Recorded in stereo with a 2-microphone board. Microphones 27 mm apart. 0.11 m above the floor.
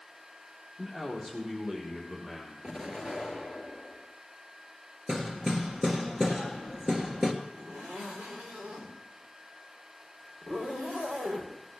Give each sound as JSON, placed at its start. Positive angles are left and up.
{"t": 0.8, "sound": "a man speaking", "side_deg": -30, "distance_m": 4.0}
{"t": 2.6, "sound": "an explosion", "side_deg": -25, "distance_m": 1.6}
{"t": 5.1, "sound": "hammering", "side_deg": -15, "distance_m": 1.5}
{"t": 7.5, "sound": "a zipper", "side_deg": -60, "distance_m": 4.0}